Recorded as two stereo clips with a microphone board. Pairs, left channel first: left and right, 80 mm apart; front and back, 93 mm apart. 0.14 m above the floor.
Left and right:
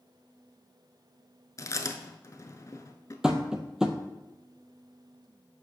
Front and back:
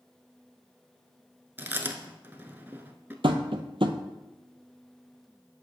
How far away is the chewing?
About 0.6 m.